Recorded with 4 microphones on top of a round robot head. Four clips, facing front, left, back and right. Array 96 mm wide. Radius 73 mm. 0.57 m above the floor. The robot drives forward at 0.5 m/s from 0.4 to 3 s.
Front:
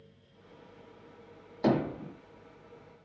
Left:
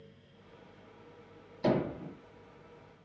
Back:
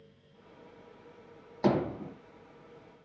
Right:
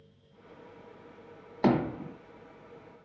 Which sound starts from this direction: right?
Hammering, at 1.6 s.